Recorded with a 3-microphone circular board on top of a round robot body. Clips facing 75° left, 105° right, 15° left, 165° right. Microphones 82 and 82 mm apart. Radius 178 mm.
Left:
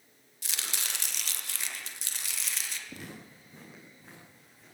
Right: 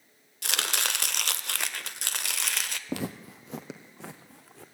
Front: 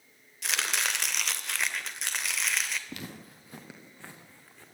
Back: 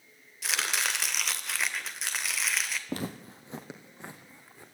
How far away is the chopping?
About 1.7 m.